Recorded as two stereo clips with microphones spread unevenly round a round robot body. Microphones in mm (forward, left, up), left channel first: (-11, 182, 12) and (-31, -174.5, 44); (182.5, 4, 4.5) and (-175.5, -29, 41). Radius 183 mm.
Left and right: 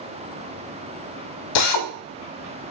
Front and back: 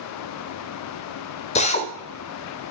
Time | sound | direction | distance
1.6 | a drill | 75° left | 1.0 m